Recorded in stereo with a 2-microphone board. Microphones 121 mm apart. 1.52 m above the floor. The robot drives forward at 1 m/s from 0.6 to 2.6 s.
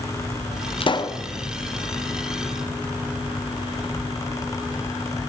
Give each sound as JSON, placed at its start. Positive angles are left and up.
{"t": 0.8, "sound": "a pop", "side_deg": 45, "distance_m": 0.5}